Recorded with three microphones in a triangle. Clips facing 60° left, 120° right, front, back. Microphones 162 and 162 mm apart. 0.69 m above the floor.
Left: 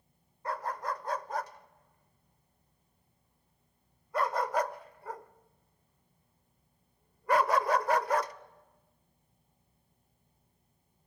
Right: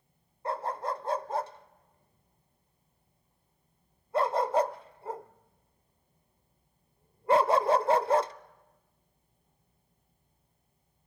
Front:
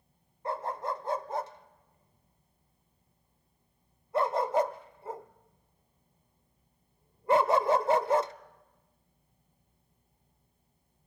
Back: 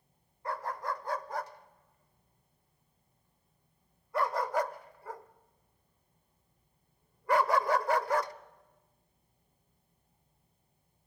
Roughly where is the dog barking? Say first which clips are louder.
Right 3 dB, front 3 dB; ahead right.